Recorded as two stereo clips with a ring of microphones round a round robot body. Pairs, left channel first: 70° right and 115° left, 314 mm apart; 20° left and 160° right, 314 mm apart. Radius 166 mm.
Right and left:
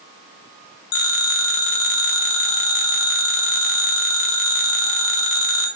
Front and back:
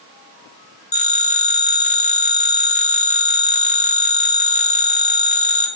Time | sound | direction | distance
0.9 | a phone ringing | 45° right | 2.5 m